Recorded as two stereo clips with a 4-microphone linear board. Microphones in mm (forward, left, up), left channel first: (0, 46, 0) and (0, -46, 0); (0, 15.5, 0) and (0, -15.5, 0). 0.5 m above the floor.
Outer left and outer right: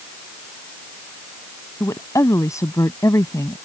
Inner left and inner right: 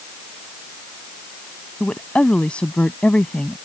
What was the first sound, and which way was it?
A woman speaking, 35° left (ahead or behind).